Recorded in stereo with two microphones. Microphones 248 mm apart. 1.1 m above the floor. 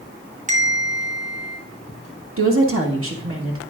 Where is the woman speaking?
60° right (ahead or behind), 1.5 m.